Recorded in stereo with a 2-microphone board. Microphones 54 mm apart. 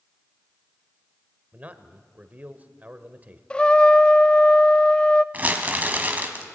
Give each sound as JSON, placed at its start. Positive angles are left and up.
{"t": 1.5, "sound": "a man speaking", "side_deg": -30, "distance_m": 1.4}
{"t": 3.5, "sound": "a trumpet", "side_deg": 20, "distance_m": 0.5}
{"t": 5.3, "sound": "crumpling", "side_deg": -30, "distance_m": 1.8}